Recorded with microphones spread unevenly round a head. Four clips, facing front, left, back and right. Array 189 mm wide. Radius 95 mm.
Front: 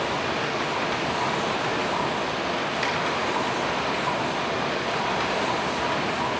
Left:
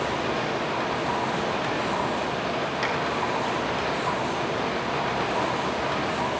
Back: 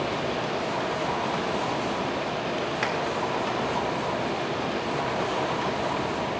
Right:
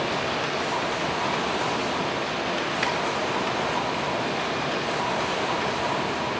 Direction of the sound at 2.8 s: 170° right.